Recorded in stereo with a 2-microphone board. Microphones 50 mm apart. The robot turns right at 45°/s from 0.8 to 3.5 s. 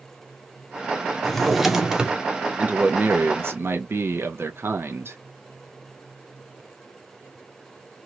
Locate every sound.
1.2 s a drawer: 170° left, 0.6 m; by 2.2 s 150° right, 0.6 m
2.6 s a man speaking: 155° right, 0.6 m; by 5.2 s 110° right, 0.6 m